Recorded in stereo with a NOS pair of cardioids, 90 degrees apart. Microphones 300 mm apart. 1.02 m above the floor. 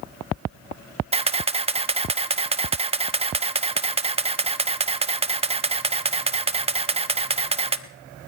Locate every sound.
1.1 s a camera shutter: 20° right, 1.0 m